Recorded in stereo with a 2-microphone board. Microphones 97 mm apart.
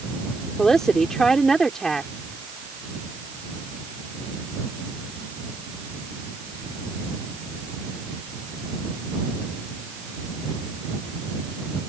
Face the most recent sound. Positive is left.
turn(degrees=5)  # may be behind; listen again after turning